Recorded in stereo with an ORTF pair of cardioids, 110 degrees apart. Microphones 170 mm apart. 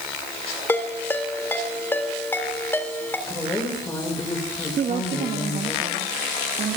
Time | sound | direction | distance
0.7 | a ringtone | 10° left | 3.5 m
3.3 | a woman speaking | 20° left | 7 m
4.8 | a woman speaking | 45° right | 1.8 m